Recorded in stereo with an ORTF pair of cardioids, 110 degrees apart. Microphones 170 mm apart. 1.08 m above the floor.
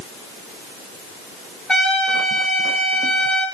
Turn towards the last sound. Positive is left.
turn(degrees=5)